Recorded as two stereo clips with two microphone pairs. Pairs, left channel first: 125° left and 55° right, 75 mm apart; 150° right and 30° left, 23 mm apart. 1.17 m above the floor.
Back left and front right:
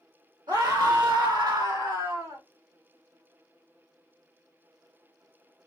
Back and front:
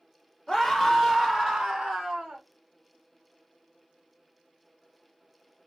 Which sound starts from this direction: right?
A scream, at 0.5 s.